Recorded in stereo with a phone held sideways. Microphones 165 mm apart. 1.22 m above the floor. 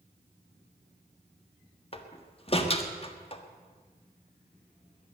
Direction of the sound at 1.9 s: 35° left (ahead or behind).